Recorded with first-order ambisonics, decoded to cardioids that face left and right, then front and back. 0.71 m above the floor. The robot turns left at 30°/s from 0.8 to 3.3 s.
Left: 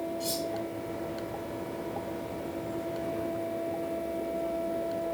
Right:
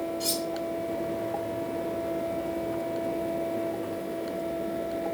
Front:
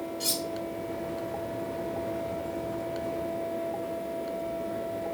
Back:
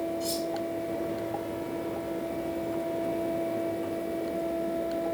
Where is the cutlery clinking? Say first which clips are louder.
Right 3 dB, even; 15° right, 1.2 m.